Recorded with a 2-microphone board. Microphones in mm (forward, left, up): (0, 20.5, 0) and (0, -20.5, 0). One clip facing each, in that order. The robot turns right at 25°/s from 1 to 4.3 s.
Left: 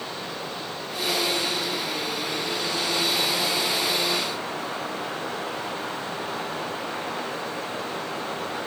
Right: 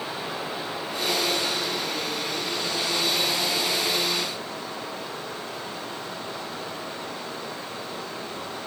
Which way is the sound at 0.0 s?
10° right.